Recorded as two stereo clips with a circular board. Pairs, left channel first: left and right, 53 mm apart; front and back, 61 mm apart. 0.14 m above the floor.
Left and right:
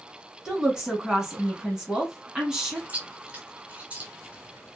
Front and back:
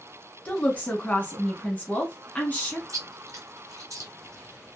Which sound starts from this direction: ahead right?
A woman speaking, at 0.5 s.